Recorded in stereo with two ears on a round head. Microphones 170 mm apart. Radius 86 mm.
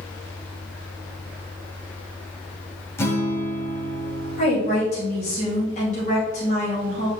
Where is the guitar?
15° left (ahead or behind), 1.3 m.